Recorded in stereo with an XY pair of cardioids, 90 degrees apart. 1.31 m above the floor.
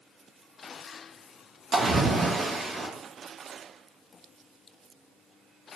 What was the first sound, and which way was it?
A splash, 45° right.